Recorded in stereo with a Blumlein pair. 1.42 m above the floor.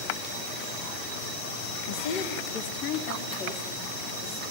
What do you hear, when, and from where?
1.9 s a woman speaking: 50° left, 1.9 m; by 4.4 s 45° left, 4.5 m